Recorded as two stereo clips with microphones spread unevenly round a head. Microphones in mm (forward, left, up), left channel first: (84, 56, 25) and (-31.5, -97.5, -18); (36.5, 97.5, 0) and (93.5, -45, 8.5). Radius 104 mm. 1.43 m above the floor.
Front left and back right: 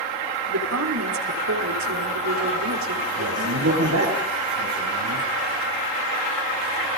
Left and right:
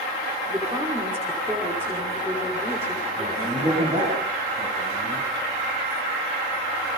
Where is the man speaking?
135° right, 9 m.